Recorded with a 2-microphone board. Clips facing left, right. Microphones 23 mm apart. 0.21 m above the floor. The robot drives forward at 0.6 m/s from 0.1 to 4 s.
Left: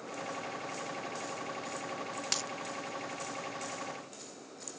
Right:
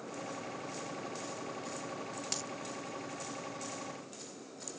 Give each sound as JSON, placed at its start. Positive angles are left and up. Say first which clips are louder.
{"t": 2.3, "sound": "a dropped coin", "louder": "left 6 dB", "side_deg": 30}